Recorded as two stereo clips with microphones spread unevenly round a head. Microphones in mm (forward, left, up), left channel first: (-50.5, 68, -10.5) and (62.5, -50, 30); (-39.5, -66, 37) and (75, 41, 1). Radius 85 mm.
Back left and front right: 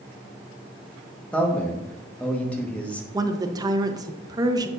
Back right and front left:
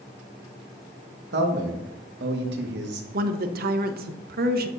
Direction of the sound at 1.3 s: 50° left.